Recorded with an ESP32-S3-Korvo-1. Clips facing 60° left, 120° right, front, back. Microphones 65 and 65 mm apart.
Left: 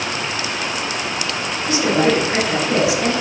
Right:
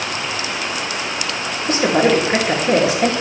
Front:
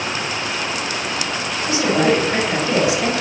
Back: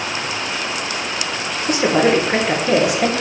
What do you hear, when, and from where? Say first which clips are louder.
1.7 s a woman speaking: right 2 dB, back 2 dB; 160° right, 3 m